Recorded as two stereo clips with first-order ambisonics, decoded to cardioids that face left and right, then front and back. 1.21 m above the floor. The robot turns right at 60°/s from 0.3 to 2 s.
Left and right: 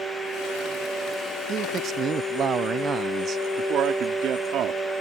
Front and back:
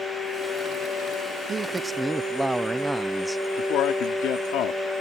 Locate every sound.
1.5 s a man speaking: 130° right; by 3.4 s 95° right
3.6 s a man speaking: 40° right